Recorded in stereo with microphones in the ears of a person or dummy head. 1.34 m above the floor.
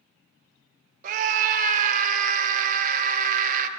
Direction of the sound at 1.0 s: 45° right (ahead or behind).